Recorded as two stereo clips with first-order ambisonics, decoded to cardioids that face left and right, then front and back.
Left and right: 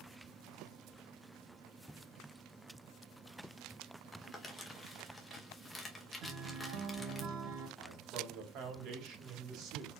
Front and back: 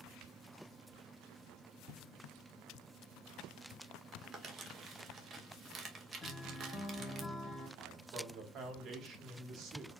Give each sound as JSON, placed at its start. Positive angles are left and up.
{"t": 4.1, "sound": "crumpling", "azimuth_deg": 160, "distance_m": 0.8}
{"t": 6.2, "sound": "a guitar", "azimuth_deg": -80, "distance_m": 0.9}
{"t": 7.8, "sound": "a man speaking", "azimuth_deg": -130, "distance_m": 1.5}